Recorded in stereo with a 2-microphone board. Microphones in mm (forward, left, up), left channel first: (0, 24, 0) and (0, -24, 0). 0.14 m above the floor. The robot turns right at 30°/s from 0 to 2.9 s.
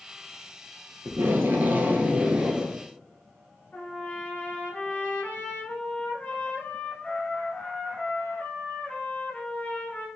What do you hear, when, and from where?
1.1 s tape being pulled: 65° right, 0.7 m; by 2.8 s 15° right, 0.7 m
3.7 s a trumpet: 35° left (ahead or behind), 1.3 m